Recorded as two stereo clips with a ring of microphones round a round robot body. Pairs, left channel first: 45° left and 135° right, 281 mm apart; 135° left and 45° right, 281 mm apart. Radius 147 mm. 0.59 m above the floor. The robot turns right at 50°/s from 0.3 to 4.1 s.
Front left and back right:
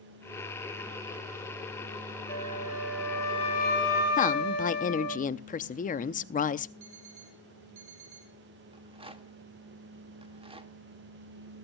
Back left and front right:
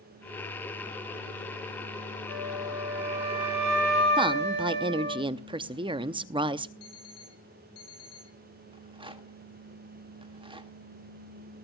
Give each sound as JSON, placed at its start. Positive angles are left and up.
{"t": 2.3, "sound": "a flute", "azimuth_deg": -85, "distance_m": 4.0}
{"t": 4.2, "sound": "a woman speaking", "azimuth_deg": 10, "distance_m": 0.6}
{"t": 6.8, "sound": "an alarm clock", "azimuth_deg": 175, "distance_m": 7.0}
{"t": 8.7, "sound": "a rattle", "azimuth_deg": -90, "distance_m": 1.3}